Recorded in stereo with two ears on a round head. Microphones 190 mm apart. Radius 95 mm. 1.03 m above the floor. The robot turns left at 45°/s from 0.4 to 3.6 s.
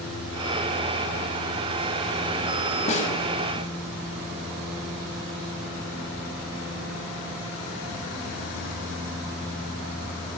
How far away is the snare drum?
About 1.8 m.